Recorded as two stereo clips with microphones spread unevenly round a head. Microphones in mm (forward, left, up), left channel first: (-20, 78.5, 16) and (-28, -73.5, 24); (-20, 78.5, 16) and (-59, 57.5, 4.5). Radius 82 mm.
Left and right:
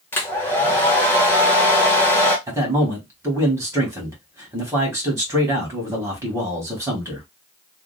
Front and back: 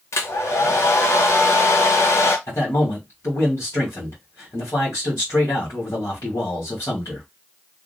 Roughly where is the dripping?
No dripping in this recording.